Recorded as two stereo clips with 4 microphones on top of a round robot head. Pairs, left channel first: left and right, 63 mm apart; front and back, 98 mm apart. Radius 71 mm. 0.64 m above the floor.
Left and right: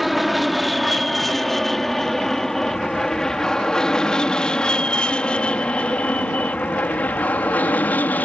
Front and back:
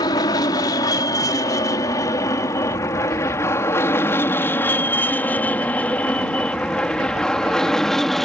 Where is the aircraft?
Straight ahead; by 8.2 s 90° left.